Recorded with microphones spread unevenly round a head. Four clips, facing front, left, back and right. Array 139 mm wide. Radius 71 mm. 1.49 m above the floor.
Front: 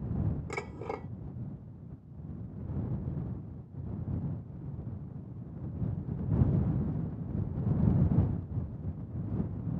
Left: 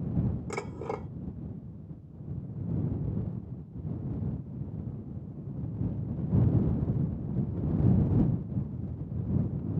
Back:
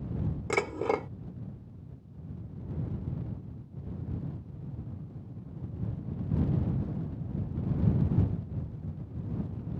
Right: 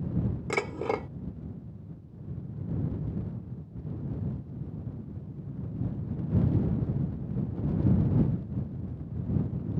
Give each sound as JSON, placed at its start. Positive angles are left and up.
{"t": 0.5, "sound": "dishes clattering", "azimuth_deg": -145}